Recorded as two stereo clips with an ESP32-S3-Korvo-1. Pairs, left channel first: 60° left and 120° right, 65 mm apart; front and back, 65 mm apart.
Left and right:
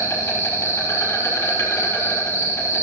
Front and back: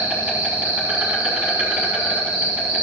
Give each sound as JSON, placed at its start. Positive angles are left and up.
{"t": 0.0, "sound": "an insect", "azimuth_deg": 110, "distance_m": 6.0}